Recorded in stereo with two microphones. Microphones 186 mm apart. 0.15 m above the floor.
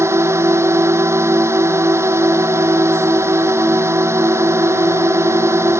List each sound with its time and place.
0.0 s a drone: 15° right (ahead or behind)